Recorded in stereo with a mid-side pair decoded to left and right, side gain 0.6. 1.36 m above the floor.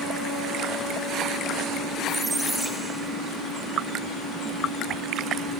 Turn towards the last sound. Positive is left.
turn(degrees=-15)